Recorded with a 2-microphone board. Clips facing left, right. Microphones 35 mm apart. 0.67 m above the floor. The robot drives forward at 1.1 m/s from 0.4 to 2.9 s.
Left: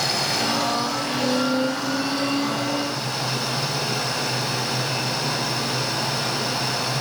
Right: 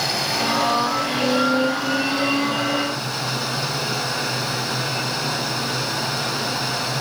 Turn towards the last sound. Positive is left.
turn(degrees=0)  # may be behind; listen again after turning